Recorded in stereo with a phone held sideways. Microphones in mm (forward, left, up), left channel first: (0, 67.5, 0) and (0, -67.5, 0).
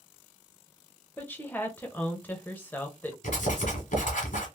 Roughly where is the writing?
Left.